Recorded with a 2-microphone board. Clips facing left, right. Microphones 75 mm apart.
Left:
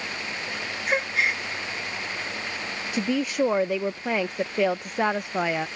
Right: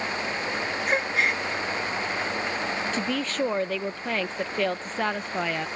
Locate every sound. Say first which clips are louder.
0.9 s a gasp: left 1 dB; centre (ahead or behind)
2.9 s a woman speaking: left 3 dB; 15° left (ahead or behind)